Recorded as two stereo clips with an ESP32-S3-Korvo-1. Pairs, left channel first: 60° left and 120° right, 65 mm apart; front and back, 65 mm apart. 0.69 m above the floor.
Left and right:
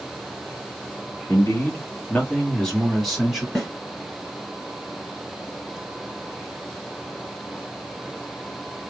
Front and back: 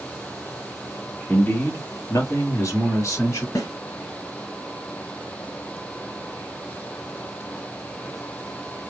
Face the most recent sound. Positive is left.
turn(degrees=-20)